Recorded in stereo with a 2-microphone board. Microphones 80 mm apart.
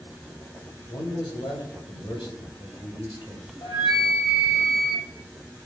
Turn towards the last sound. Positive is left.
turn(degrees=65)  # may be behind; listen again after turning